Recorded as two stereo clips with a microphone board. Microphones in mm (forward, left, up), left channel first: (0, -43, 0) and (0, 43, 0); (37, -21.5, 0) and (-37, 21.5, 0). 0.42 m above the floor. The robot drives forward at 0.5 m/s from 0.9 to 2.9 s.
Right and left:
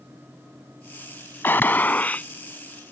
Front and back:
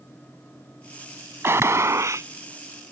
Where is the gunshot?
155° right; by 2.3 s 160° right.